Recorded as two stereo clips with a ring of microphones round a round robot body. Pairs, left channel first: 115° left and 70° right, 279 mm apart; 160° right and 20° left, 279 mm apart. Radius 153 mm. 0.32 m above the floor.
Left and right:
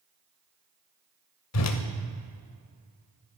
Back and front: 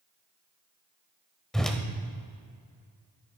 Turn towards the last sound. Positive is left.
turn(degrees=115)